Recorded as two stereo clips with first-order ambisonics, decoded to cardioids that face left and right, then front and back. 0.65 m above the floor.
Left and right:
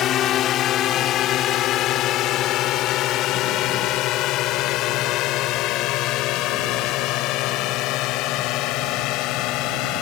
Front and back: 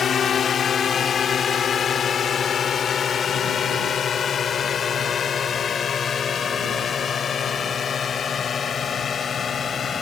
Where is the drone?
55° left; by 10.0 s 70° left.